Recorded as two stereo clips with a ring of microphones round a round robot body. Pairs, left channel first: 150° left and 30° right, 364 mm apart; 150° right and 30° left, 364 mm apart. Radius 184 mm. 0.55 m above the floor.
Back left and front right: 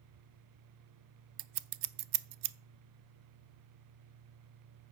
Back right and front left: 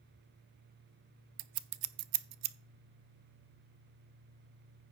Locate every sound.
1.4 s scissors: 5° right, 0.5 m